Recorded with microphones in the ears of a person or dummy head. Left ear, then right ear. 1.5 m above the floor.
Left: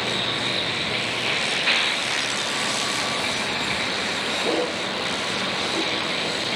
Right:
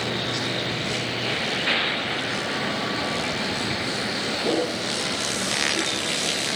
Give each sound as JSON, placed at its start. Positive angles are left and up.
{"t": 0.0, "sound": "a vehicle", "side_deg": 30}